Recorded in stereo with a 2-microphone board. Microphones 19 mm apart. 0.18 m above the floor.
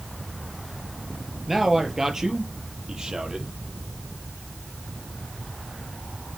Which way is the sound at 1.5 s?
15° right (ahead or behind).